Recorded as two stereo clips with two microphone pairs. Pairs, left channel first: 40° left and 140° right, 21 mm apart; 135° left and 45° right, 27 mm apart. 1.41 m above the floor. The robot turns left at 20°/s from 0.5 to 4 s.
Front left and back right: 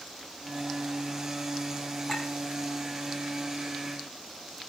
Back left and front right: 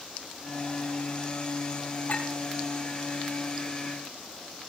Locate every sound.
2.1 s a clink: 110° left, 9 m; by 2.3 s 105° left, 9 m